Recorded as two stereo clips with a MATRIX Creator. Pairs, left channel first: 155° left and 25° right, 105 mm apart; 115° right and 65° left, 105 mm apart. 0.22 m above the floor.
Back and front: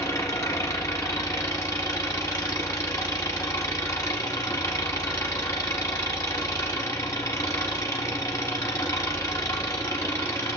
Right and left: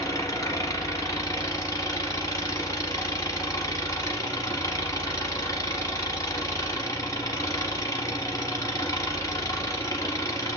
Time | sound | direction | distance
0.0 | an engine running | 155° right | 0.9 m